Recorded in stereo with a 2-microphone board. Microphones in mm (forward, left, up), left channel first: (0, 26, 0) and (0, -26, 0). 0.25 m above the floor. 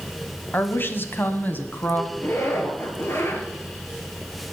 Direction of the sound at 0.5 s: 45° left (ahead or behind).